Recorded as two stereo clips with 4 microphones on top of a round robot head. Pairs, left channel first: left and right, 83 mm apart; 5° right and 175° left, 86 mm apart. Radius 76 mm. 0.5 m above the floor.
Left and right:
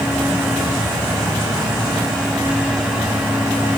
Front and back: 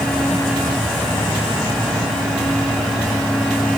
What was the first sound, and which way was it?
Only background noise.